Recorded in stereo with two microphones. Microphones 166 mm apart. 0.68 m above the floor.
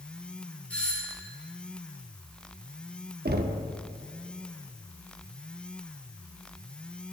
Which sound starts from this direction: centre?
A doorbell, at 0.7 s.